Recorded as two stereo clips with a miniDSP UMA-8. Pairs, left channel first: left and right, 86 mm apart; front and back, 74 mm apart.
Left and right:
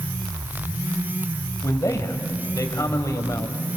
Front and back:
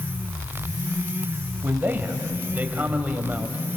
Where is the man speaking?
125° left, 2 m.